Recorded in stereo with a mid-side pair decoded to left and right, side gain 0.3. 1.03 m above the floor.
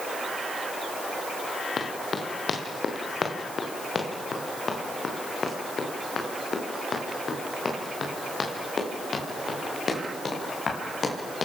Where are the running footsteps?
60° left, 5 m; by 11.5 s 55° left, 11 m.